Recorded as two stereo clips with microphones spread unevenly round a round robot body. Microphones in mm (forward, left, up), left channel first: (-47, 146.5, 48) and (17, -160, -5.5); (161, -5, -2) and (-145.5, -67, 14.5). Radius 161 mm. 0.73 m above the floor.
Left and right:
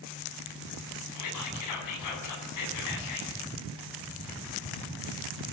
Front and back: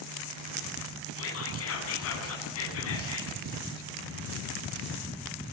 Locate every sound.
1.1 s whispering: 65° left, 8 m